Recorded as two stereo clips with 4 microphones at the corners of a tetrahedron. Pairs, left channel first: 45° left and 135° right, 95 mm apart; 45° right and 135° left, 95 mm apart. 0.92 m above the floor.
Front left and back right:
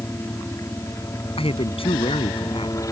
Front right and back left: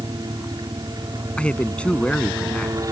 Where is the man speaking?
35° left.